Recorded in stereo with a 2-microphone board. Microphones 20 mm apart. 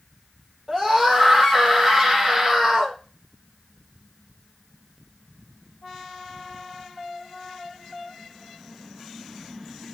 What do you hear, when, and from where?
0.7 s a scream: 20° right (ahead or behind), 7 m